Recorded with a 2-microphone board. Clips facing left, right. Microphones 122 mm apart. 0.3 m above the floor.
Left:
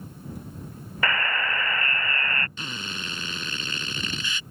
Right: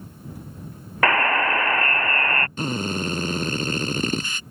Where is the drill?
45° right (ahead or behind).